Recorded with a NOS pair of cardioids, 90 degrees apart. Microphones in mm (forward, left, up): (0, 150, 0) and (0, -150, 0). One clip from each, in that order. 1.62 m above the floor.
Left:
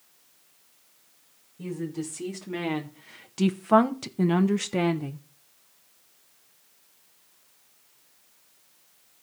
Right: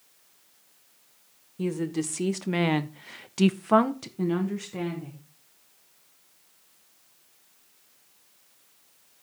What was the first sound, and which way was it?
A woman speaking, 60° right.